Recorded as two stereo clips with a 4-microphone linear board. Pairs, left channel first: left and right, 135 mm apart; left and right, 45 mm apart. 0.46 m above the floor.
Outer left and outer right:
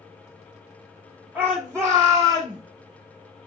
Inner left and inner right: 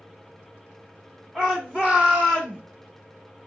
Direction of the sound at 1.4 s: 10° right (ahead or behind).